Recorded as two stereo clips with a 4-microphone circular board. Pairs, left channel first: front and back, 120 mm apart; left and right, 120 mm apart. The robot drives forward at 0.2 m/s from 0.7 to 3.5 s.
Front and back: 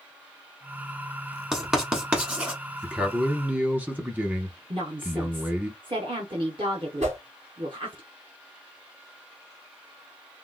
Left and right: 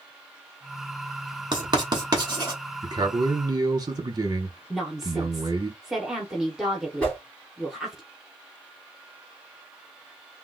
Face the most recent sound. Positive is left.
turn(degrees=170)